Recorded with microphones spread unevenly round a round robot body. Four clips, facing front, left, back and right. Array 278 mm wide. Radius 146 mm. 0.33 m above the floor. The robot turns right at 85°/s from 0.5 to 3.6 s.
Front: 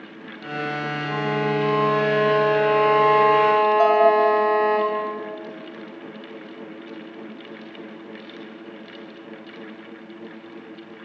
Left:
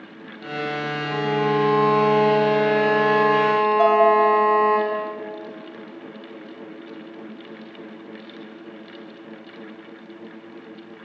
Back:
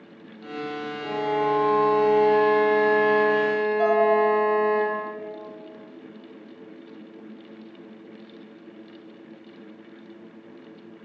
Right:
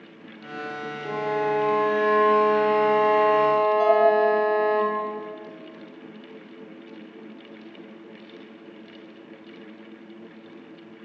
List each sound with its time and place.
1.0 s a violin: 170° right, 6 m; by 4.8 s 50° left, 6 m
3.8 s dishes clattering: 55° left, 4 m